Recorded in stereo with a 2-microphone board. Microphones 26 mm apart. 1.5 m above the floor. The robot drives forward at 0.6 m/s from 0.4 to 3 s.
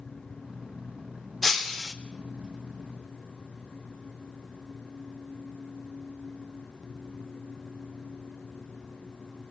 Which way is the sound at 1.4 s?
10° left (ahead or behind).